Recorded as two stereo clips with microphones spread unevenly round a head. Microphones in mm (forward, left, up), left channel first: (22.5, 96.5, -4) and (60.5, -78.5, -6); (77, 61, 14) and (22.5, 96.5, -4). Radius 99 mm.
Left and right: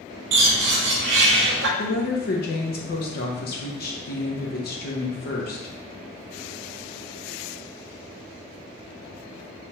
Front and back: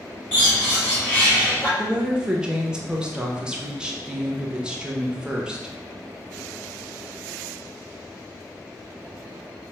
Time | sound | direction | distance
0.3 | a bird | 105° right | 0.6 m
1.8 | a woman speaking | 80° left | 1.0 m